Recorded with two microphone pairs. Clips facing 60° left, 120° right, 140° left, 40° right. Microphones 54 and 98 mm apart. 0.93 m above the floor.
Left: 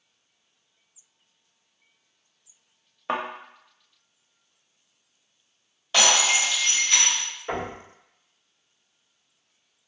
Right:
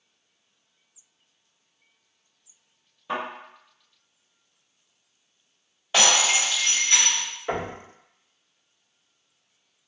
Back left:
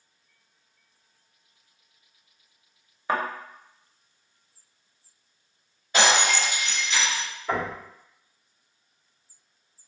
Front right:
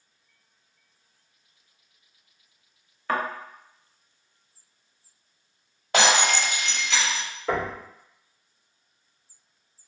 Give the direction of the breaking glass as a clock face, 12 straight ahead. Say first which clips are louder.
Even, front right 1 dB; 2 o'clock.